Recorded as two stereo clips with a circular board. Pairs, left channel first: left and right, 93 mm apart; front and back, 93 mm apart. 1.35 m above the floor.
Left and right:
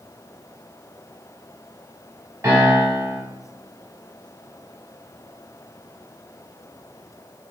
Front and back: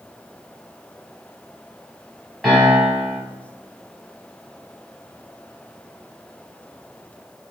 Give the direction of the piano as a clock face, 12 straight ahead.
3 o'clock.